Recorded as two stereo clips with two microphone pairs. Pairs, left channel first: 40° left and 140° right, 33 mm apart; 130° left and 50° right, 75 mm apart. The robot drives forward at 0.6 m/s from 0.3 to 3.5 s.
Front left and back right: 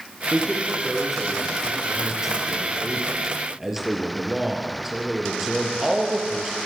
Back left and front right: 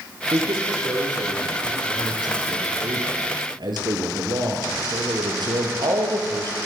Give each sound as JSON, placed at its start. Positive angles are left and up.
{"t": 0.3, "sound": "a man speaking", "azimuth_deg": -45, "distance_m": 7.0}